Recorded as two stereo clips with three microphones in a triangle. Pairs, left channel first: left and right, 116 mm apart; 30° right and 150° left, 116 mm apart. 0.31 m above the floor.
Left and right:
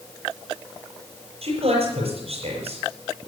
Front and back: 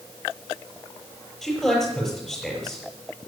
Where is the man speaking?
120° right, 6.5 m.